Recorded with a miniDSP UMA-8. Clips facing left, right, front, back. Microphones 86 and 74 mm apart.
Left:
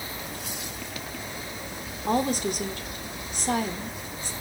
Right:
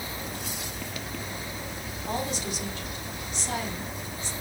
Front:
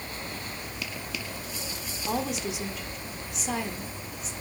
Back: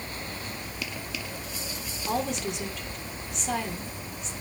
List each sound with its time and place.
2.1 s a woman speaking: 85° left, 1.7 m